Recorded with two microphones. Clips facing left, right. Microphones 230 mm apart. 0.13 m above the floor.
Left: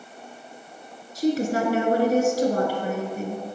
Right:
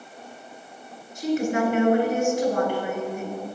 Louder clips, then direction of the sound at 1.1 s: Left 1 dB; 35° left (ahead or behind).